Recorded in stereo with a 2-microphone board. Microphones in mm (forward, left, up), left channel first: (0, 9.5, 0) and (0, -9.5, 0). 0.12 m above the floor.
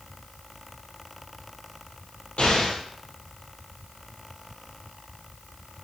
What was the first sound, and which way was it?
An explosion, 60° left (ahead or behind).